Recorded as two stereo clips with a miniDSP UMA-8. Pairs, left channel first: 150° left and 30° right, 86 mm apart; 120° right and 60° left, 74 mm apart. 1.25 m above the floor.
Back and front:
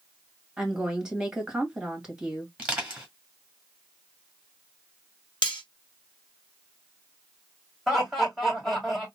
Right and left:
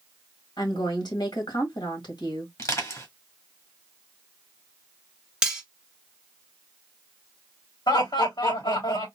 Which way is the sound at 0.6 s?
110° right.